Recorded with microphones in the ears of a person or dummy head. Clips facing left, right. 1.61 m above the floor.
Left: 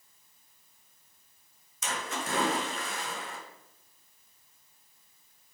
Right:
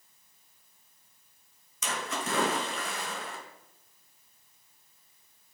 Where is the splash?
60° right (ahead or behind), 2.5 m.